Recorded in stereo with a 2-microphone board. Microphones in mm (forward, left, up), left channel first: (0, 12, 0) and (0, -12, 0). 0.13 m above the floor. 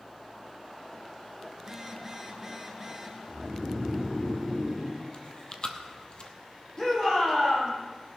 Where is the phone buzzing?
20° right (ahead or behind), 2 m.